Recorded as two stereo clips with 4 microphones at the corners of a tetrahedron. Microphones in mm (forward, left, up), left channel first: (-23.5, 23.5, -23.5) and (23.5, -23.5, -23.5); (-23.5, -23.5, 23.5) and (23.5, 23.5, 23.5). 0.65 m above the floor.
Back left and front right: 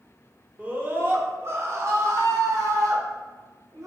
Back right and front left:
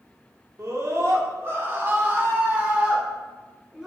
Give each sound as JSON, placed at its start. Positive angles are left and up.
{"t": 0.6, "sound": "a scream", "azimuth_deg": 15, "distance_m": 1.5}